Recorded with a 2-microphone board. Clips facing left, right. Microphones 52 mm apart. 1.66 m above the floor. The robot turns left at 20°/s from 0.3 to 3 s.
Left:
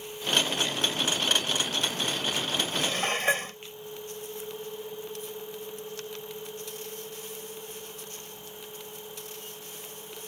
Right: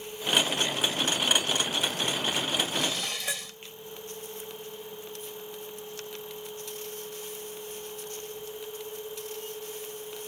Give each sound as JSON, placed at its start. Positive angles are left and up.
{"t": 2.7, "sound": "dishes clattering", "side_deg": 45}